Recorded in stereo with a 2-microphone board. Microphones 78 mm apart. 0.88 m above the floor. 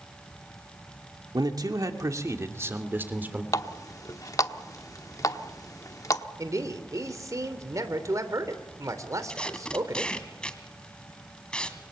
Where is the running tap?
45° left (ahead or behind), 1.1 m.